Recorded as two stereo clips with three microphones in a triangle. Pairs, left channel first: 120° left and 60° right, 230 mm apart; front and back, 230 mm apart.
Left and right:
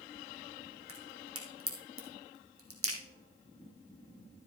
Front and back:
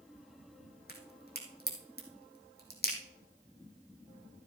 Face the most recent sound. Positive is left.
turn(degrees=-45)